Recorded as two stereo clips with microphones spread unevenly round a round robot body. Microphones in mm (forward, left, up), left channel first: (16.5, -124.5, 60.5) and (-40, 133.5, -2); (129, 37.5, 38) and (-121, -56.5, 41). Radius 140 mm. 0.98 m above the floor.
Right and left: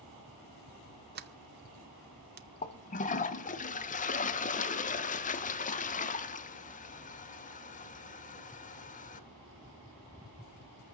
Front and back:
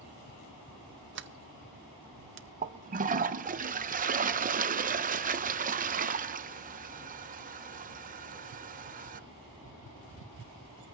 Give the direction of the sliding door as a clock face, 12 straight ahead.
7 o'clock.